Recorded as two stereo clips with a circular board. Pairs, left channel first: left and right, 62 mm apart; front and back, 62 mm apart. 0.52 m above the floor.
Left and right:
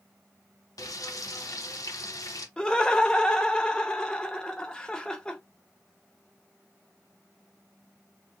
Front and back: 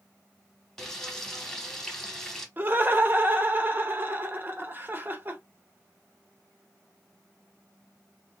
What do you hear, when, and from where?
0.8 s frying: 80° left, 0.9 m
2.6 s laughter: 155° left, 0.8 m